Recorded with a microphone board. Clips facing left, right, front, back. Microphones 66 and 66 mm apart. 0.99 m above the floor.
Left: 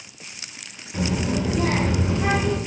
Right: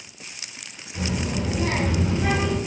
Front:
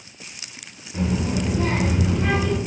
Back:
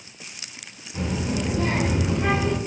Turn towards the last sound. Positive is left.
turn(degrees=115)